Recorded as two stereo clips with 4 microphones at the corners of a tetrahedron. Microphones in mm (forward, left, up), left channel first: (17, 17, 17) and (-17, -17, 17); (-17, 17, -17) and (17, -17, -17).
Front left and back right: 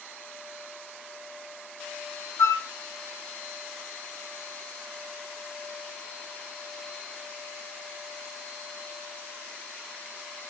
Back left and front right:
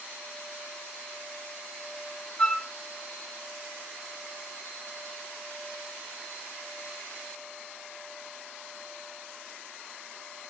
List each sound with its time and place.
2.4 s a flute: 60° left, 0.7 m